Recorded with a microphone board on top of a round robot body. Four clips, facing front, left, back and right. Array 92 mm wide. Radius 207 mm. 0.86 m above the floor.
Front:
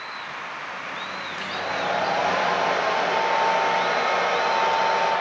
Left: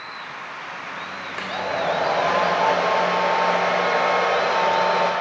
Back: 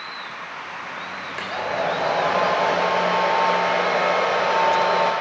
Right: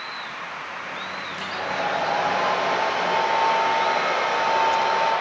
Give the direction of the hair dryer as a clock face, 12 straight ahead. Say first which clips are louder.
Left 3 dB, back 3 dB; 8 o'clock.